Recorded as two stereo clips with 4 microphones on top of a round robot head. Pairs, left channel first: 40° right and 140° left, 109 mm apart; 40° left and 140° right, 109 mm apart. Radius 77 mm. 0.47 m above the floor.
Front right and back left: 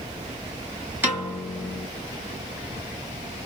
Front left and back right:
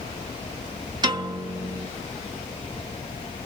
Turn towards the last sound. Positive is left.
turn(degrees=-160)